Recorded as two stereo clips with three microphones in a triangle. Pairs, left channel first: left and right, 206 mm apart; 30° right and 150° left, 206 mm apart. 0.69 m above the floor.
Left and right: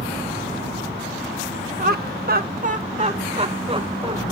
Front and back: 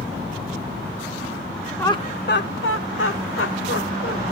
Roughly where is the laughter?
Right.